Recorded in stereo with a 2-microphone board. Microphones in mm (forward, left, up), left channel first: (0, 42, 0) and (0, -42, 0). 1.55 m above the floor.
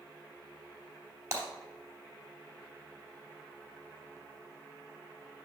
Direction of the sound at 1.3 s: 35° right (ahead or behind).